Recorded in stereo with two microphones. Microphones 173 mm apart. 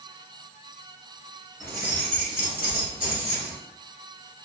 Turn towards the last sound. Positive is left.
turn(degrees=-35)  # may be behind; listen again after turning